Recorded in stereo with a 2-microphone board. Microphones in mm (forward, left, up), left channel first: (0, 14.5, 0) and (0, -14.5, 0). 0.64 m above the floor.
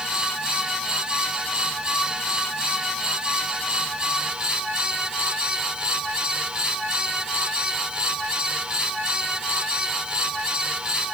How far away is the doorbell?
I don't hear a doorbell.